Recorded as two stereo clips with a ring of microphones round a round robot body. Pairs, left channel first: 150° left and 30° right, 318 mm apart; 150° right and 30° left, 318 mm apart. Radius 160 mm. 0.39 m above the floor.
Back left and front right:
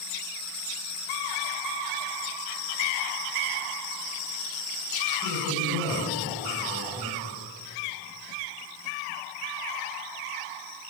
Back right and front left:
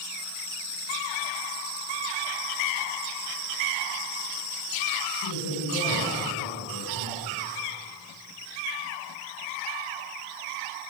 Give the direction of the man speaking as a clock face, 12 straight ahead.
4 o'clock.